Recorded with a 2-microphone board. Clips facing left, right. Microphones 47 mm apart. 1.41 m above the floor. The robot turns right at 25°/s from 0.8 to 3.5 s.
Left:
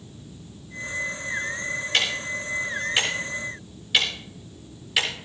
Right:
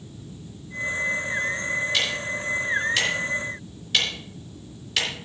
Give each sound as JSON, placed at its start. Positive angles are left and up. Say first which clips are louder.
{"t": 1.9, "sound": "ticking", "louder": "left 1 dB", "side_deg": 55, "distance_m": 6.5}